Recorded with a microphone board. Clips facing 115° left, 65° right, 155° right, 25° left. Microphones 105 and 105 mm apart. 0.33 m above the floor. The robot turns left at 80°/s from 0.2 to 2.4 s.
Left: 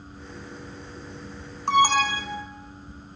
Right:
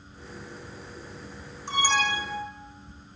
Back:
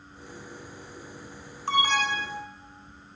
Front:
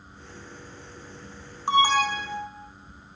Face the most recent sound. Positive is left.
turn(degrees=40)